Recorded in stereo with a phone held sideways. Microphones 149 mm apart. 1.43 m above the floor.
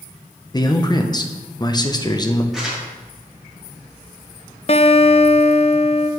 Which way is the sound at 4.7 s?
45° left (ahead or behind).